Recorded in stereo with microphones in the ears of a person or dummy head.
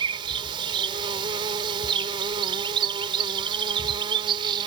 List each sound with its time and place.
0.0 s an insect: 25° right (ahead or behind)